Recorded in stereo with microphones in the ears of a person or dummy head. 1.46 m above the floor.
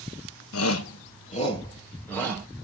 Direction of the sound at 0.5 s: 80° left.